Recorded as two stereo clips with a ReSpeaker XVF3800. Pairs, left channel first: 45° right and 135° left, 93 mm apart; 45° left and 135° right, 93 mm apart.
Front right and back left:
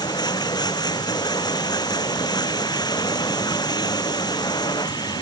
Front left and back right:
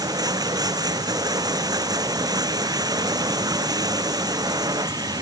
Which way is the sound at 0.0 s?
90° right.